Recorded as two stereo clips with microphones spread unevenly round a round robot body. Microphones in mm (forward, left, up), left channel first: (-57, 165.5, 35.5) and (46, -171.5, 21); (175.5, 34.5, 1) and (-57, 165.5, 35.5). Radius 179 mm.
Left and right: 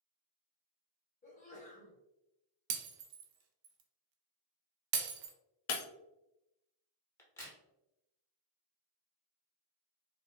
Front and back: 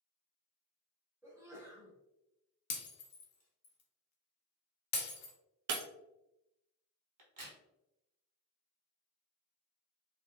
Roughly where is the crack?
Behind.